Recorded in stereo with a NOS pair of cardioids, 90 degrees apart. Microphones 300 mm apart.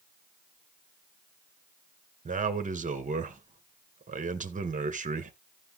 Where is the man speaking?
25° right, 2.0 m.